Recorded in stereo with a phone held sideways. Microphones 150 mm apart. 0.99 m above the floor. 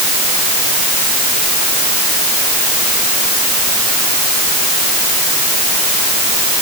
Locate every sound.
Only background noise.